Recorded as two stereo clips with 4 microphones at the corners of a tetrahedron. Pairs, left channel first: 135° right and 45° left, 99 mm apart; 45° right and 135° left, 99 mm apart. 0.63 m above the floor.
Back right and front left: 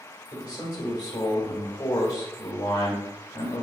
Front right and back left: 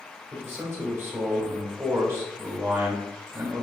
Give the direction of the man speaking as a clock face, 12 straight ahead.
6 o'clock.